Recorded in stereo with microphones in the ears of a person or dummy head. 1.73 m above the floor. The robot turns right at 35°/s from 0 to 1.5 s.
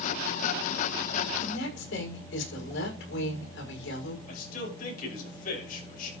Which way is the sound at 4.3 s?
55° left (ahead or behind).